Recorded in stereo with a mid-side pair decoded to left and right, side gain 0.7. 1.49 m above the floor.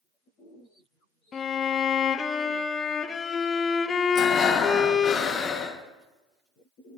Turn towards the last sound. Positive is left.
turn(degrees=35)